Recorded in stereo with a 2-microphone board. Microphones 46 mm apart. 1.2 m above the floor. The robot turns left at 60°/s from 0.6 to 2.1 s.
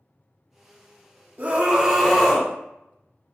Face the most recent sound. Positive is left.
turn(degrees=175)